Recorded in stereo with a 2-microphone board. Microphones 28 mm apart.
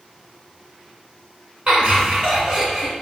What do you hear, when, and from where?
1.7 s laughter: 30° right (ahead or behind), 1.9 m; by 2.9 s 10° right (ahead or behind), 1.8 m